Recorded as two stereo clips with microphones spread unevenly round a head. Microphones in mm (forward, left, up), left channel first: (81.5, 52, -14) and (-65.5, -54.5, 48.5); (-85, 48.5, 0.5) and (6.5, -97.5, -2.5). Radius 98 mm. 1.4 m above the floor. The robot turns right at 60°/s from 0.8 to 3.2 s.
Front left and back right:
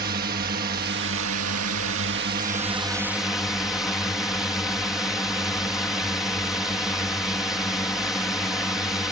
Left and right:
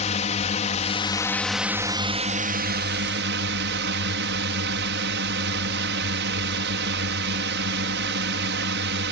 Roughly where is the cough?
No cough in this recording.